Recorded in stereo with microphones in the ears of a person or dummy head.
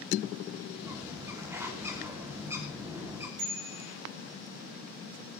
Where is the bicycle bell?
60° right (ahead or behind), 7 m.